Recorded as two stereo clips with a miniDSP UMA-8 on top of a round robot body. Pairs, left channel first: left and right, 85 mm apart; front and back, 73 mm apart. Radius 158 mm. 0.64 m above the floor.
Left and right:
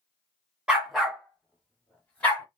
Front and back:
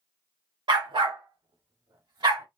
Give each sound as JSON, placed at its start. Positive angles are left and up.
{"t": 0.7, "sound": "a dog barking", "azimuth_deg": -170, "distance_m": 0.5}